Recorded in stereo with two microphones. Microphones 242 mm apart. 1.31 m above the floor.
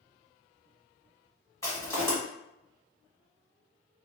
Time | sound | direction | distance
1.6 | crushing | 10° left (ahead or behind) | 1.6 m